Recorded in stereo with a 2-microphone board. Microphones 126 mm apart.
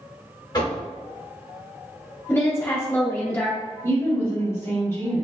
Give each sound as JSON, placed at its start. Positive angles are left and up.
{"t": 0.5, "sound": "knocking", "side_deg": 35, "distance_m": 1.3}
{"t": 2.3, "sound": "a woman speaking", "side_deg": 20, "distance_m": 0.7}
{"t": 3.8, "sound": "a woman speaking", "side_deg": 20, "distance_m": 1.1}